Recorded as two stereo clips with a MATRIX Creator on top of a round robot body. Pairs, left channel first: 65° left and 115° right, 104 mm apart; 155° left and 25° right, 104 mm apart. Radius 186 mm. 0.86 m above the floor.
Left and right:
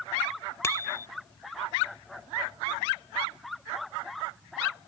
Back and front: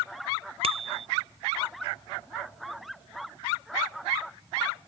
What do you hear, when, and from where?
0.6 s a bicycle bell: 5° left